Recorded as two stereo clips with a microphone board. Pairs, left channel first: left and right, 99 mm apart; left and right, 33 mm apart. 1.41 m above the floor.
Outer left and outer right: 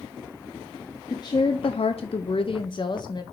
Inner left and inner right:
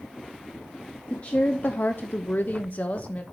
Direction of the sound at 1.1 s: 35° left (ahead or behind).